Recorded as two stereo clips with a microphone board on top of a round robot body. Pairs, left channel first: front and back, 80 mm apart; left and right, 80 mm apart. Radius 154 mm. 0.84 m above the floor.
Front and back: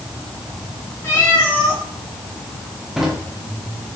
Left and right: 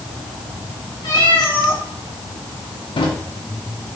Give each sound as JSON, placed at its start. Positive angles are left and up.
{"t": 1.0, "sound": "a cat meowing", "azimuth_deg": 60, "distance_m": 3.5}
{"t": 3.0, "sound": "a drawer", "azimuth_deg": 95, "distance_m": 1.4}